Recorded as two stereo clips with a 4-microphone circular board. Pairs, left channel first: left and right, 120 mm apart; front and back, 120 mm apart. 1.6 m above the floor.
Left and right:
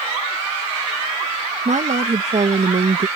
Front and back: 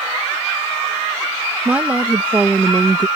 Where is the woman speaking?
100° right.